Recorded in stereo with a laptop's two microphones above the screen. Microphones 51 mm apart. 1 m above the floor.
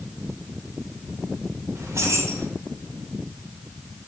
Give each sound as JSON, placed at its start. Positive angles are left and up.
{"t": 1.8, "sound": "keys jangling", "side_deg": -70, "distance_m": 2.5}